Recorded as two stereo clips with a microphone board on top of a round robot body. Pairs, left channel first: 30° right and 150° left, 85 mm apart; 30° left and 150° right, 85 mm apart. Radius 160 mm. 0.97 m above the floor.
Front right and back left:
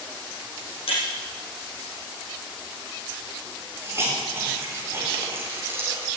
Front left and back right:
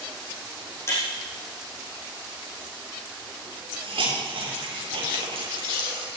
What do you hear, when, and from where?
0.9 s breaking glass: 30° right, 7 m
3.8 s a hiss: 150° right, 4 m